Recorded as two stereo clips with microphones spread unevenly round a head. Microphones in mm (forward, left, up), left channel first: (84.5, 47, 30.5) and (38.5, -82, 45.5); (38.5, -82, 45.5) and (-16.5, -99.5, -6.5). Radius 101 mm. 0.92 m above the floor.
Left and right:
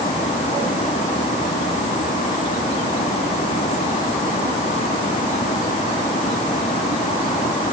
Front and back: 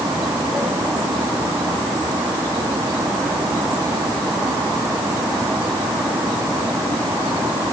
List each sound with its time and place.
Only background noise.